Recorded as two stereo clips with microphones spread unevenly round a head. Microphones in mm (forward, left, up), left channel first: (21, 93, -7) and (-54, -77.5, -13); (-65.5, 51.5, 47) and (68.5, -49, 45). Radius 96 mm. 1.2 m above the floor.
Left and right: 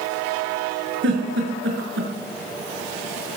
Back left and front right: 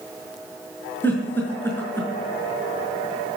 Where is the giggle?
140° right, 5.5 m.